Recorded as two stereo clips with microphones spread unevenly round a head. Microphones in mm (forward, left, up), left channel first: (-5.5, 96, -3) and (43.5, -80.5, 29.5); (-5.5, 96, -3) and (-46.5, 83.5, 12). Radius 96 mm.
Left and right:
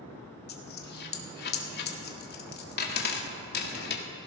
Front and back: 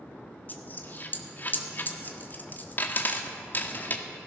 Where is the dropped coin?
75° left, 1.5 m.